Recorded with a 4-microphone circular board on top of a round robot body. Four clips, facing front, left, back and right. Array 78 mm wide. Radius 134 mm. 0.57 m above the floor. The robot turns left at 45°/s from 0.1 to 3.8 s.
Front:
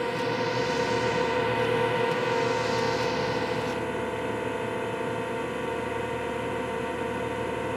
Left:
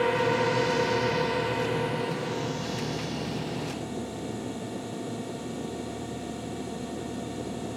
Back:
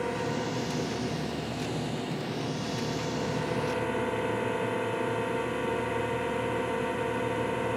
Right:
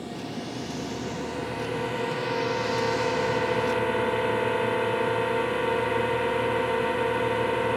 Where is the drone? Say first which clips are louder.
Left 10 dB, front 3 dB; 75° left; by 7.8 s 90° right.